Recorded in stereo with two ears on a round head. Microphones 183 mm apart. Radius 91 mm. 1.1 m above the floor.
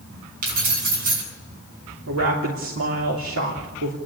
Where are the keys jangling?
45° right (ahead or behind), 8 m.